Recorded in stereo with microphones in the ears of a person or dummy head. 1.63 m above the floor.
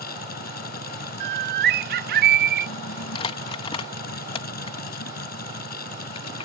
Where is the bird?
50° right (ahead or behind).